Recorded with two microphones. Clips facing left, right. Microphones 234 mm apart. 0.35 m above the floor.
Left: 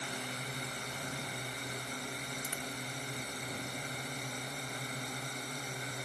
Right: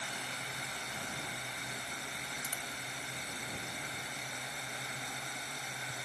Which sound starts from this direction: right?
A dropped coin, at 2.4 s.